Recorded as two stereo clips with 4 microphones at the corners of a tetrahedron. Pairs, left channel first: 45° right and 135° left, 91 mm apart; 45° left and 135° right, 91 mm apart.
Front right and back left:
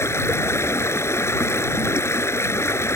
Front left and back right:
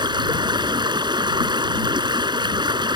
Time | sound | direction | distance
0.0 | running water | 105° right | ?